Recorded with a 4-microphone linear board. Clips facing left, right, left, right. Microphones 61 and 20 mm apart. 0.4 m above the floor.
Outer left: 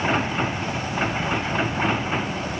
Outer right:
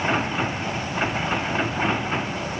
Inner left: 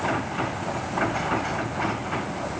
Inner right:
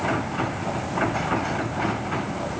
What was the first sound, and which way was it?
Only background noise.